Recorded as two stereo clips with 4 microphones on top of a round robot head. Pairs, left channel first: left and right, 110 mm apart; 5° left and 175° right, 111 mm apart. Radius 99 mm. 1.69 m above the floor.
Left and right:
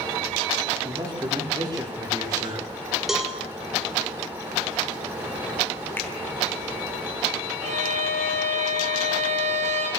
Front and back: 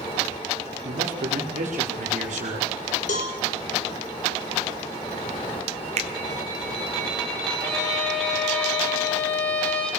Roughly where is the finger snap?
Behind.